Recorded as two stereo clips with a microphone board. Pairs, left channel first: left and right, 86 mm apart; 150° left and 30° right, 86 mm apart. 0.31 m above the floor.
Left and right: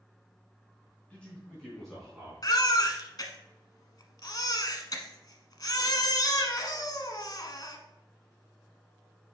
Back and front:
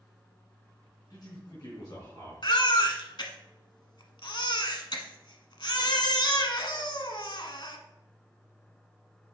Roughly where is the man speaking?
Behind.